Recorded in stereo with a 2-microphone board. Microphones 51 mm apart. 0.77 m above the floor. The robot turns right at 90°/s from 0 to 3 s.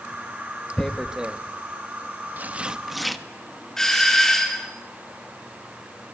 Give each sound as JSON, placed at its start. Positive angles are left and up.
{"t": 0.8, "sound": "tearing paper", "side_deg": 15, "distance_m": 1.1}
{"t": 3.8, "sound": "a doorbell", "side_deg": 10, "distance_m": 3.5}